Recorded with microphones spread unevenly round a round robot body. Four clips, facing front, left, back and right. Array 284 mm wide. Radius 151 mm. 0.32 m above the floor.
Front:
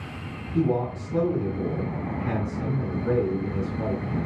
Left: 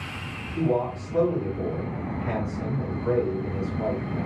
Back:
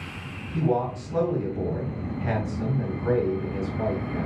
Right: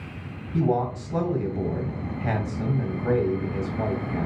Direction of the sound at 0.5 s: 90° right.